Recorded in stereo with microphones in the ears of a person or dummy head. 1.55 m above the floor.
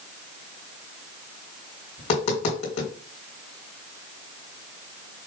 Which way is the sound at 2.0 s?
35° left (ahead or behind).